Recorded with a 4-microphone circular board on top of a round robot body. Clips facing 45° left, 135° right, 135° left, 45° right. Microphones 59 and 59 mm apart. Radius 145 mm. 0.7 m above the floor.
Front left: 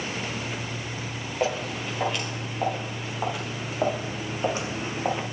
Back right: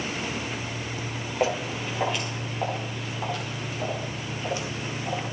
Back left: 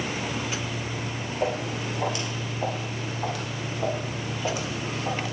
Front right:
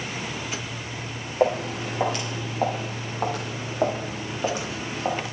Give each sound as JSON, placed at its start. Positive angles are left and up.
{"t": 1.4, "sound": "footsteps", "azimuth_deg": -55, "distance_m": 6.0}